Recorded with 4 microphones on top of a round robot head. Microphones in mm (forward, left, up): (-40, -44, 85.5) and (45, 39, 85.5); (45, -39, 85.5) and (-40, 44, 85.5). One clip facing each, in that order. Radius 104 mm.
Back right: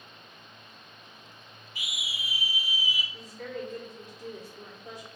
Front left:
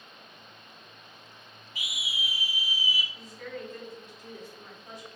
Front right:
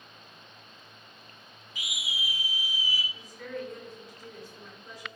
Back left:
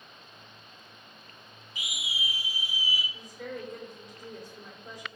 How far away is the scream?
About 2 m.